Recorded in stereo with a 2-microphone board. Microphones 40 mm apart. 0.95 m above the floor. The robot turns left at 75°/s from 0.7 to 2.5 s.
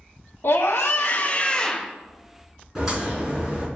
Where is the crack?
10° right (ahead or behind), 4 m.